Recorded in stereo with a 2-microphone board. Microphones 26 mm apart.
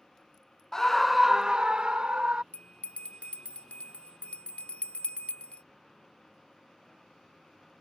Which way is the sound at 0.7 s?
25° left (ahead or behind).